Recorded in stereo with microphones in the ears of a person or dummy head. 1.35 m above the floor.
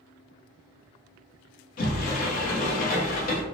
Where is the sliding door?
45° left (ahead or behind), 0.8 m.